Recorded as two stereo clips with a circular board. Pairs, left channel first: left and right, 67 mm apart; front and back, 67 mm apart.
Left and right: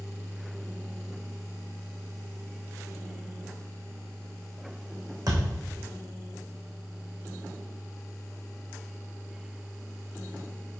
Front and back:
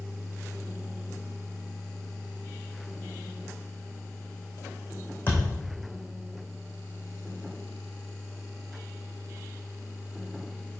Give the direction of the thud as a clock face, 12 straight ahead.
2 o'clock.